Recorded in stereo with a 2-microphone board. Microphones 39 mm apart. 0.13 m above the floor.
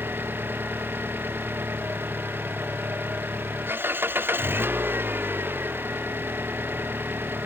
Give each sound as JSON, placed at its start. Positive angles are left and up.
{"t": 0.0, "sound": "an engine running", "side_deg": -70}